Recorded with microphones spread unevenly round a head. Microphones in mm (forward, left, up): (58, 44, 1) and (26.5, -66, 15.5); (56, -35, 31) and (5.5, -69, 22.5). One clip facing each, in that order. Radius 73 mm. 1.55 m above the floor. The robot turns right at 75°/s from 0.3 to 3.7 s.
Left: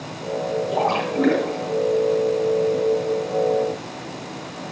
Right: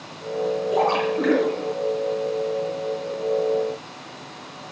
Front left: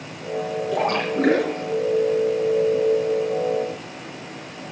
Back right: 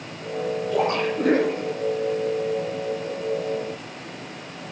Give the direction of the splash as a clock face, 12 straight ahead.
12 o'clock.